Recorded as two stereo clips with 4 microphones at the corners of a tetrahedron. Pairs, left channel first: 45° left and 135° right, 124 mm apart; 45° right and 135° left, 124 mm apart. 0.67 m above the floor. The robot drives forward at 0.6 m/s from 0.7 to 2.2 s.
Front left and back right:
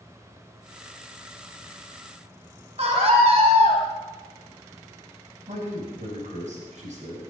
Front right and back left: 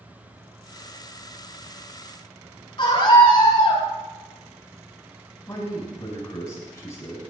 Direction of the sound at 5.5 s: 115° right.